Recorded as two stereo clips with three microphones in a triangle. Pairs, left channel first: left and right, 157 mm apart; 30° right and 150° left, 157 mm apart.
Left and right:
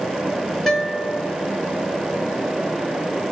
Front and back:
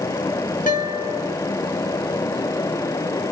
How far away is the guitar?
About 5.5 m.